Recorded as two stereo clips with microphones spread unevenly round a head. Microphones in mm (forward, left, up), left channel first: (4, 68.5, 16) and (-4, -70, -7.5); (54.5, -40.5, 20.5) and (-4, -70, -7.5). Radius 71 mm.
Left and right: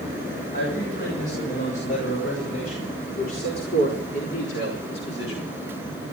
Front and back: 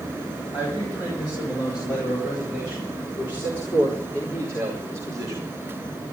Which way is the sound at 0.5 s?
55° left.